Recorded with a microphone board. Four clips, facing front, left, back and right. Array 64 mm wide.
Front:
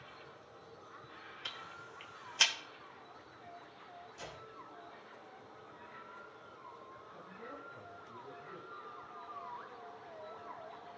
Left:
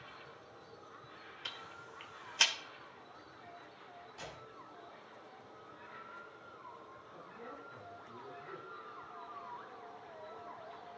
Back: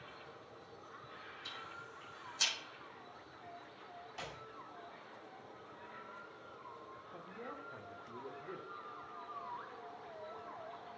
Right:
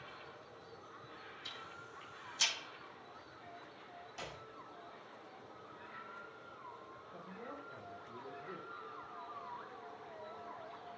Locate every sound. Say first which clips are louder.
1.4 s ticking: left 4 dB, front 1 dB; 50° left, 1.3 m
4.2 s a clap: right 1 dB, back 2 dB; 160° right, 5 m
7.1 s a man speaking: right 1 dB, back 2 dB; 170° right, 1.8 m